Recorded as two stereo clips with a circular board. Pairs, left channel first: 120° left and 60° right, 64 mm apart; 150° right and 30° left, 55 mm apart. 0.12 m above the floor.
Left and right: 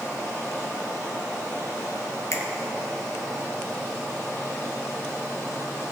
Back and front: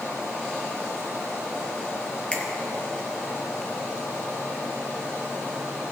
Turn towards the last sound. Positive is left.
turn(degrees=140)